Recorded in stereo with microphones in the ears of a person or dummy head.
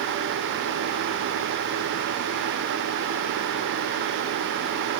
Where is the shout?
I don't hear a shout.